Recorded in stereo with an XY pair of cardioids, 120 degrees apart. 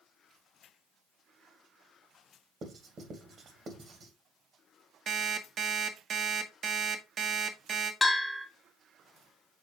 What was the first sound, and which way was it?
Writing, 45° right.